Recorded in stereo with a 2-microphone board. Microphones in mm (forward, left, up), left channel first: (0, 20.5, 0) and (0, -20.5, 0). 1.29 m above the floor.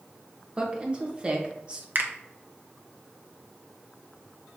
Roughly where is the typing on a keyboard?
I don't hear typing on a keyboard.